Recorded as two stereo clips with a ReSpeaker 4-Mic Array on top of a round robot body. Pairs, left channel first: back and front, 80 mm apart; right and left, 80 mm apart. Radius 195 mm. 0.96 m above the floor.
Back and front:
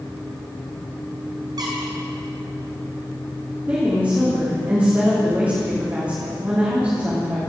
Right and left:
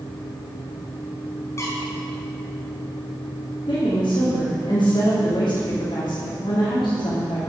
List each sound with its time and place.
1.6 s a squeak: 35° right, 1.1 m
3.7 s a woman speaking: 65° right, 3 m